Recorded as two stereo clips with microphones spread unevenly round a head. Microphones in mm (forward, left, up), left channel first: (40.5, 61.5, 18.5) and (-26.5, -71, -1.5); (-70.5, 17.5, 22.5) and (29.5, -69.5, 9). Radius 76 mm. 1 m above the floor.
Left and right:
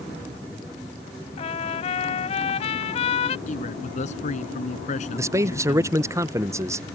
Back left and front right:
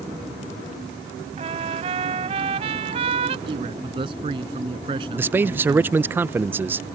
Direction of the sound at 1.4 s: 15° left.